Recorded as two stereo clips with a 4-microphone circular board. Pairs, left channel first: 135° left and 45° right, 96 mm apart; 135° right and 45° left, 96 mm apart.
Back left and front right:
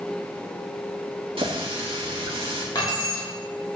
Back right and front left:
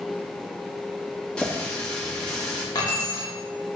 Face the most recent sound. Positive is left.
turn(degrees=180)